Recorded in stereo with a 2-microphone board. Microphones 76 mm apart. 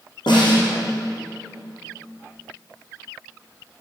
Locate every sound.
0.3 s a snare drum: 75° left (ahead or behind), 6 m